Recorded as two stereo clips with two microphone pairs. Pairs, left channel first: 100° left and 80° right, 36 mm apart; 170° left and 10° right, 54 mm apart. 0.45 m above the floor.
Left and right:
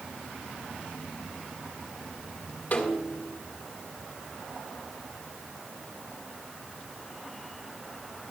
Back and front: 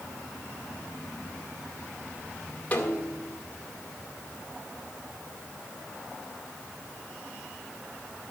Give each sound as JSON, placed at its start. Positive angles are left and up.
{"t": 2.7, "sound": "a snare drum", "azimuth_deg": 115, "distance_m": 1.9}